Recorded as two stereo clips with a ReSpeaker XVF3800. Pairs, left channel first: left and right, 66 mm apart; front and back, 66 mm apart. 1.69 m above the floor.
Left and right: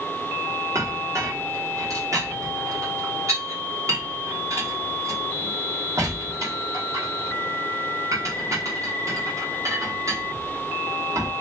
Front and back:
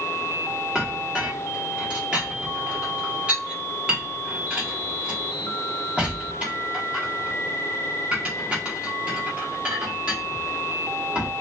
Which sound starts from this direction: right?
A clink, at 0.8 s.